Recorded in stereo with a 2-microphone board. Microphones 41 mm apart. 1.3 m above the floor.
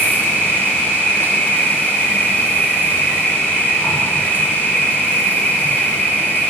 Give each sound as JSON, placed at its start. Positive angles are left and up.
{"t": 0.0, "sound": "an insect", "side_deg": 60, "distance_m": 2.5}